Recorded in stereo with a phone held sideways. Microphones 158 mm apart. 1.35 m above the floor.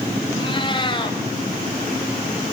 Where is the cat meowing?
30° left (ahead or behind), 4.5 m.